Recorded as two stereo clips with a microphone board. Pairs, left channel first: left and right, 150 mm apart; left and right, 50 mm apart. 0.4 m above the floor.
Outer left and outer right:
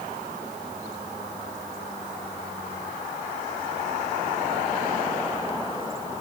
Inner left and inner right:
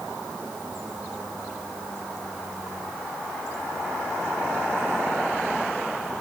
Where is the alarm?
I don't hear an alarm.